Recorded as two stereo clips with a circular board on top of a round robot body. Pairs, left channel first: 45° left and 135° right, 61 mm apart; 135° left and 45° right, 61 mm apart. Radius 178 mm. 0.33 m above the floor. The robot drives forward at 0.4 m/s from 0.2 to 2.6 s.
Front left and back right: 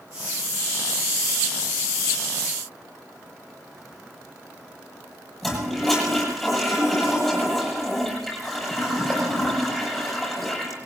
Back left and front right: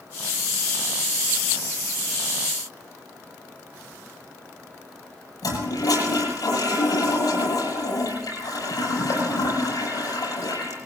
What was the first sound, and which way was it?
A toilet flushing, 135° left.